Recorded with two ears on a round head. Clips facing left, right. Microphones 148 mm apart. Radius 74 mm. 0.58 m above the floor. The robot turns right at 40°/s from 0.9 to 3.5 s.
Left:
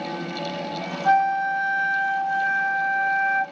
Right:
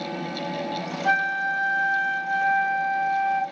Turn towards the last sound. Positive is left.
turn(degrees=30)